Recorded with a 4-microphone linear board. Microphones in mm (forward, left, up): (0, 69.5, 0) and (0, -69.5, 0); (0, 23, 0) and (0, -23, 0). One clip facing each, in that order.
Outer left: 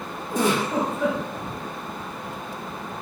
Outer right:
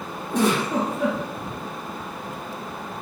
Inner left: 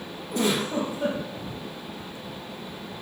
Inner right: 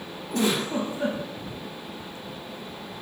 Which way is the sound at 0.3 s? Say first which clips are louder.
Outer right 1 dB, even; 65° right (ahead or behind).